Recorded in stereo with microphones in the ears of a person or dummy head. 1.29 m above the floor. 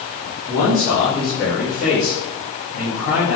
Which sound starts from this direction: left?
A man speaking, at 0.5 s.